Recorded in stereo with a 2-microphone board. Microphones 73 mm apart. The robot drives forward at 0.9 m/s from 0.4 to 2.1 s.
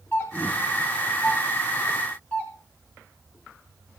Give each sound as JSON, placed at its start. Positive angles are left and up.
{"t": 0.1, "sound": "a doorbell", "side_deg": 25, "distance_m": 5.0}